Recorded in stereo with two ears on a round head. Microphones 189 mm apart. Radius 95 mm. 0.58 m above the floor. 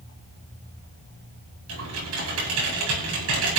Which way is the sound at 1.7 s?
80° right.